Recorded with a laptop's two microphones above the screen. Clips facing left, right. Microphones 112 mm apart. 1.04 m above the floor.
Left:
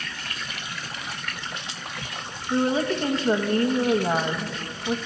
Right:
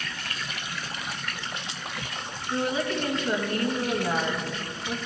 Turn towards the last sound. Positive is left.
turn(degrees=35)  # may be behind; listen again after turning